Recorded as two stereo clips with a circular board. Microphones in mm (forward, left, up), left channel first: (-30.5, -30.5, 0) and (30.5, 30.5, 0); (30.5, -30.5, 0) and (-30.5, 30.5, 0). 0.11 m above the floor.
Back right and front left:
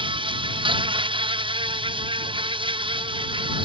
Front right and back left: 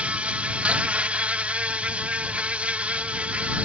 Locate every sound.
0.0 s an insect: 60° left